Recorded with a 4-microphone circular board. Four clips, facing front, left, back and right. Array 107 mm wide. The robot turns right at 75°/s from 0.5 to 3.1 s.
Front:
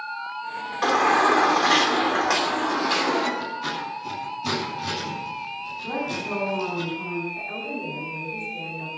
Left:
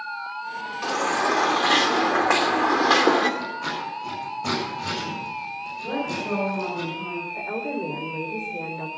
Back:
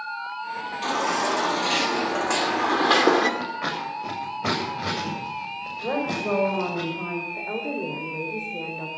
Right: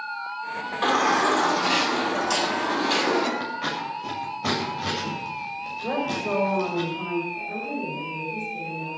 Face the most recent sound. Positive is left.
turn(degrees=130)